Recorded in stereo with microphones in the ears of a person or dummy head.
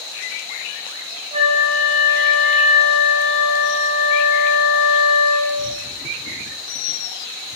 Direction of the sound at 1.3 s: 35° right (ahead or behind).